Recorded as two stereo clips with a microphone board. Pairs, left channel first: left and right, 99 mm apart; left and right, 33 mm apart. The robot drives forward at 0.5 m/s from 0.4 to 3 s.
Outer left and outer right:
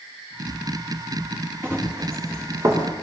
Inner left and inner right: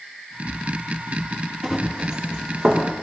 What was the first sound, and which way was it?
Running footsteps, 25° right (ahead or behind).